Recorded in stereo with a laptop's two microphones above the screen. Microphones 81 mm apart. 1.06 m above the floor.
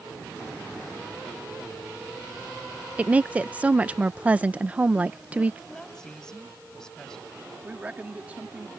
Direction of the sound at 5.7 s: 10° left (ahead or behind).